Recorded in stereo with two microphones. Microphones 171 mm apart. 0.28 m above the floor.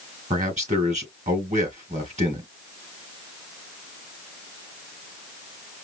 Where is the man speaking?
45° right (ahead or behind), 4 m.